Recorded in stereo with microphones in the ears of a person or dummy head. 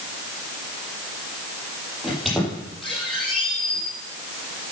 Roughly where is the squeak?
Centre.